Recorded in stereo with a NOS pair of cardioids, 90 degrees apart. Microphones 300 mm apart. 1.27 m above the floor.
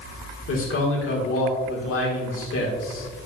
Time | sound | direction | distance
0.5 | a man speaking | 50° left | 1.8 m